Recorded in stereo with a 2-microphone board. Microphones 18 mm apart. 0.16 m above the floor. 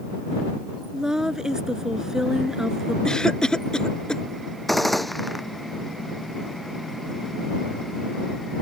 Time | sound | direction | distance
0.9 | a woman speaking | 35° right (ahead or behind) | ?
3.0 | a cough | 50° left (ahead or behind) | ?
4.7 | a gunshot | 5° left (ahead or behind) | ?